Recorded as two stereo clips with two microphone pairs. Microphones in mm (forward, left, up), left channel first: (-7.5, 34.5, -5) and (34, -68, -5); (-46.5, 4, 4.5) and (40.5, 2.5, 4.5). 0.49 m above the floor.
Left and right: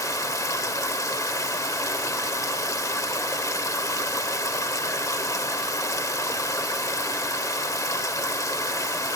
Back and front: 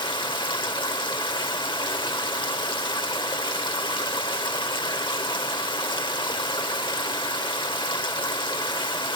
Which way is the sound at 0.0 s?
170° left.